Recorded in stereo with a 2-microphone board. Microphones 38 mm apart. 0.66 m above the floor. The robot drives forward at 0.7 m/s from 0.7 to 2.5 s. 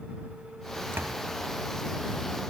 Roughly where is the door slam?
Right.